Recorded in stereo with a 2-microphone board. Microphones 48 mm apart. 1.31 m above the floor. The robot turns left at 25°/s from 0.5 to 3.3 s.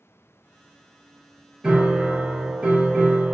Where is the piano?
35° right, 0.7 m; by 3.4 s 75° right, 0.7 m.